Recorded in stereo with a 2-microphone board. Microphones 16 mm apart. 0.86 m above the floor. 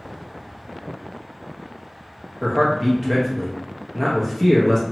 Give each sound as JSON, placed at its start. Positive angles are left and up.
{"t": 2.4, "sound": "a man speaking", "side_deg": -10, "distance_m": 0.5}